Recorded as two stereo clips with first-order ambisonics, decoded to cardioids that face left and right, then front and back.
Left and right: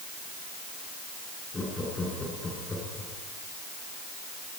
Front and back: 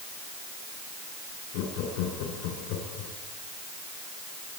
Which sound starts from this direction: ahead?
Laughter, at 1.5 s.